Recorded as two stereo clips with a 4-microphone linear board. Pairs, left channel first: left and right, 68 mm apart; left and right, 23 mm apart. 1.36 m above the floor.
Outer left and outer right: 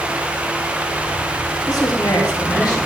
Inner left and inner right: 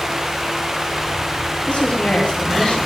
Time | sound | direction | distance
1.7 | a woman speaking | 75° left (ahead or behind) | 3 m